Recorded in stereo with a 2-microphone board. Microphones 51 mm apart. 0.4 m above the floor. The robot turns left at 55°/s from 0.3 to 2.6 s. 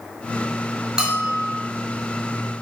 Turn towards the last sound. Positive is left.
turn(degrees=-110)